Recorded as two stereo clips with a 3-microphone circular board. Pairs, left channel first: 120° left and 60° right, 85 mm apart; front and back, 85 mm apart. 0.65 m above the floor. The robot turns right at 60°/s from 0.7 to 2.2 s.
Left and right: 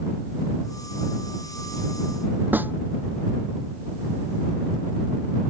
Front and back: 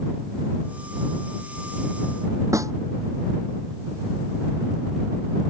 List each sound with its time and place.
2.5 s a snare drum: 130° right